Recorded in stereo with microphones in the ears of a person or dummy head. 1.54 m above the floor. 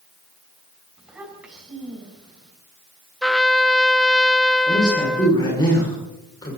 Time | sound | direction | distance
1.0 | a child speaking | 5° right (ahead or behind) | 6.5 m
3.2 | a trumpet | centre (ahead or behind) | 0.5 m
4.7 | a man speaking | 20° left (ahead or behind) | 6.5 m